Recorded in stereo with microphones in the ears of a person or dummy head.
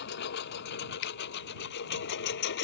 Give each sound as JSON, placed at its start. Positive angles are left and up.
{"t": 0.0, "sound": "a lawn mower", "side_deg": 55}
{"t": 1.0, "sound": "a finger snap", "side_deg": 70}